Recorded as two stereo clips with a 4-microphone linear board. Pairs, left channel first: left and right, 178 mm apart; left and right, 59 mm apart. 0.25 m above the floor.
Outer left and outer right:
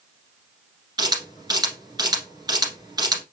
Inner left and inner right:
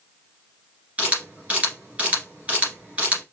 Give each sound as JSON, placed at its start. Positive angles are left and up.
{"t": 1.0, "sound": "a camera shutter", "side_deg": -25, "distance_m": 2.0}